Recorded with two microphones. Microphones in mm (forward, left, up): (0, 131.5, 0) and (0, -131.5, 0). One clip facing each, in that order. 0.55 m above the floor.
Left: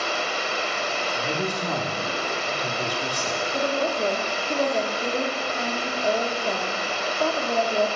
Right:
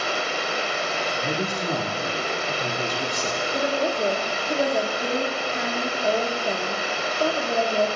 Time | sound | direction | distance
0.0 | running water | 70° right (ahead or behind) | 1.0 m
1.1 | a man speaking | 25° right (ahead or behind) | 0.8 m
3.5 | a woman speaking | 10° right (ahead or behind) | 0.7 m